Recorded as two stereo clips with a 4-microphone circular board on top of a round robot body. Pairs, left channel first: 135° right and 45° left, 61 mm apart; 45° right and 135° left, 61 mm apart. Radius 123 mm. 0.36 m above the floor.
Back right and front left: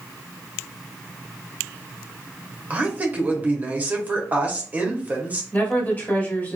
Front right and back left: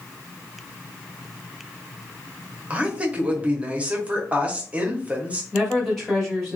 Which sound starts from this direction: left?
A woman speaking, at 2.7 s.